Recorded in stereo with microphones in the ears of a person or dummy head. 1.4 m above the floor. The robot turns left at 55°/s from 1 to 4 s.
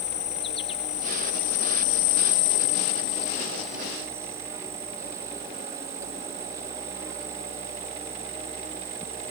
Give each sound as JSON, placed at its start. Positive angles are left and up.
{"t": 0.0, "sound": "an insect", "azimuth_deg": 145}